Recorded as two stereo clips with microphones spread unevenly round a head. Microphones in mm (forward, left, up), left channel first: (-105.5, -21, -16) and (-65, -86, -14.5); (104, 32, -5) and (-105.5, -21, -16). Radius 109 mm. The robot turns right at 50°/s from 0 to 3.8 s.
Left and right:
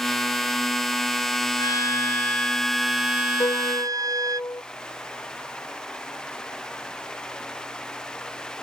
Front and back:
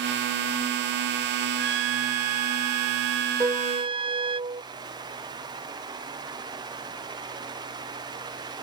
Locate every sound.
1.6 s a trumpet: 150° left; by 4.4 s 100° right
3.4 s a piano: 120° left; by 4.6 s 140° left